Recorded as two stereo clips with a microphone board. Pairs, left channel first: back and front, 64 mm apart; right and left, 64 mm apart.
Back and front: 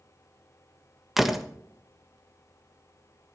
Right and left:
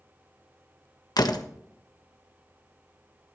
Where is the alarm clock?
I don't hear an alarm clock.